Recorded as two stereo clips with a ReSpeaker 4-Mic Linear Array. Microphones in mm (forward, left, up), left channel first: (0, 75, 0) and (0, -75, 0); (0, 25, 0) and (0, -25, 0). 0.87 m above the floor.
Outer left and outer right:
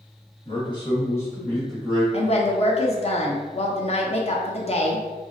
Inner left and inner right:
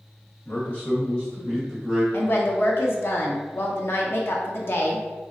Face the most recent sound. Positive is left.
turn(degrees=45)  # may be behind; listen again after turning